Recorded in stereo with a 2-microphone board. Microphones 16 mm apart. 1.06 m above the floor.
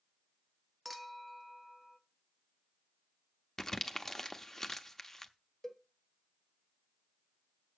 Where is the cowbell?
20° left (ahead or behind), 1.0 m.